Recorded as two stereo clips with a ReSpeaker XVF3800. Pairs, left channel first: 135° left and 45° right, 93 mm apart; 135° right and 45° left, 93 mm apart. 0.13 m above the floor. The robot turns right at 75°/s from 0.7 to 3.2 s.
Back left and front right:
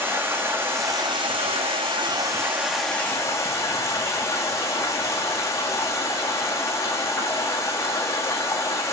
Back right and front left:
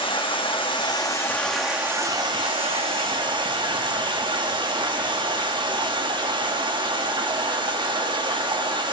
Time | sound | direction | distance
0.0 | running water | 110° right | 1.6 m